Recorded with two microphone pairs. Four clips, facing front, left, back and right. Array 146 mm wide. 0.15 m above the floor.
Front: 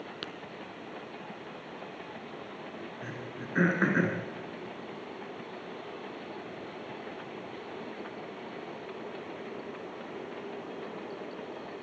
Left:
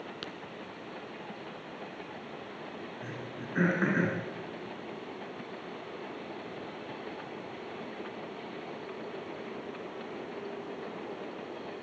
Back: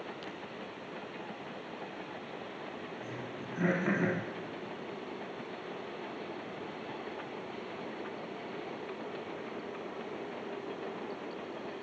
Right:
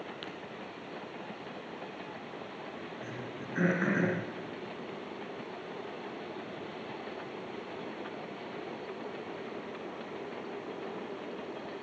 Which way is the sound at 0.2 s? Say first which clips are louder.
Left 1 dB, front 2 dB; 25° left.